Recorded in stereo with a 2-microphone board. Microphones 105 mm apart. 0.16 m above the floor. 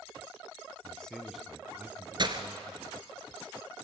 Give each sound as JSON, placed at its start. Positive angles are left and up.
{"t": 0.8, "sound": "a man speaking", "side_deg": 15, "distance_m": 1.1}
{"t": 2.2, "sound": "breaking glass", "side_deg": -45, "distance_m": 1.3}